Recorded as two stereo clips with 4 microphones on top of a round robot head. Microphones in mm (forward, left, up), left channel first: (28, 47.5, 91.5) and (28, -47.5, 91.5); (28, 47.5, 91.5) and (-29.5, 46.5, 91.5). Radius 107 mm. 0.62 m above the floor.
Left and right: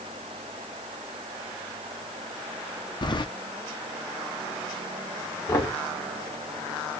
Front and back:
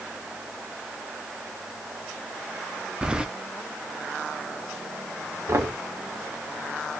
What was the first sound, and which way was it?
Keys jangling, 110° left.